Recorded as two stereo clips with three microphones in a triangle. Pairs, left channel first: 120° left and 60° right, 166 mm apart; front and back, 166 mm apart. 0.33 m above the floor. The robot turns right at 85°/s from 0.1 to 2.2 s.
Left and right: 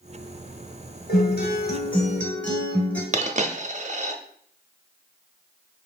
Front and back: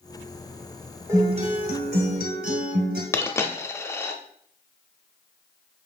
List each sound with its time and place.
1.1 s a guitar: 110° left, 1.4 m; by 3.0 s 160° right, 1.4 m
3.1 s a dropped coin: 70° right, 0.5 m